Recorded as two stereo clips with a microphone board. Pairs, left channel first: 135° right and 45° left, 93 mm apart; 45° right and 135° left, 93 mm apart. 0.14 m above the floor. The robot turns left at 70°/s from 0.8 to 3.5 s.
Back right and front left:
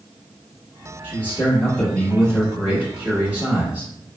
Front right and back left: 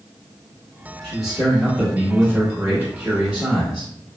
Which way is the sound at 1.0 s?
125° right.